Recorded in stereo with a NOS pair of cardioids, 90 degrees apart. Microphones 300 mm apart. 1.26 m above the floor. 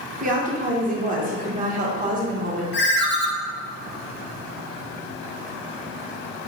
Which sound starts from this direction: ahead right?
A woman speaking, at 0.2 s.